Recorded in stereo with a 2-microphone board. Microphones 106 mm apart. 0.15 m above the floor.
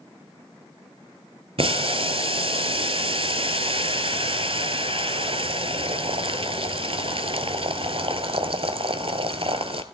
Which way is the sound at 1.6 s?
60° right (ahead or behind).